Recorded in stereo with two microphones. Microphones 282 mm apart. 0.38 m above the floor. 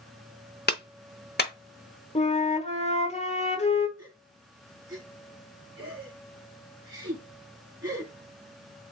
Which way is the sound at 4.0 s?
65° right (ahead or behind).